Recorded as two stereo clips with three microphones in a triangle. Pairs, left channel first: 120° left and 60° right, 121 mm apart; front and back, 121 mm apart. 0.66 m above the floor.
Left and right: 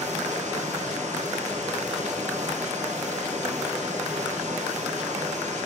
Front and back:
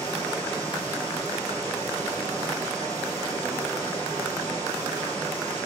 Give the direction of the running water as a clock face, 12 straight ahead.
2 o'clock.